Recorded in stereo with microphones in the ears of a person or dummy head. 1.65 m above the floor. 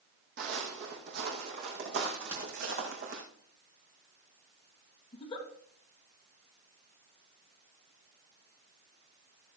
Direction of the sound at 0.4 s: 50° right (ahead or behind).